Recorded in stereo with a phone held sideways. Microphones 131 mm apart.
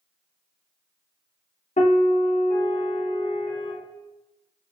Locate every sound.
1.8 s a piano: 70° left (ahead or behind), 0.9 m